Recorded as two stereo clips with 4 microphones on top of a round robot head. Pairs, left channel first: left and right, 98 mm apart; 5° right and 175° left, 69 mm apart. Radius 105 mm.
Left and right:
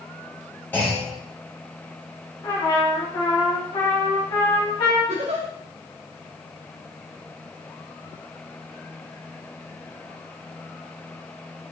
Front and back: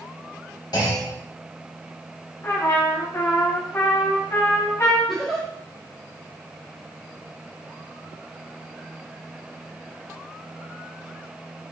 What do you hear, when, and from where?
0.7 s a clunk: 15° left, 3 m
2.4 s a trumpet: 40° left, 2.5 m
5.1 s a giggle: 95° right, 1.7 m